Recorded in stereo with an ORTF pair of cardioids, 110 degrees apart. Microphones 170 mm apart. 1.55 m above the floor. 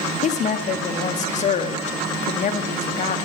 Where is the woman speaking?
40° left, 0.9 m.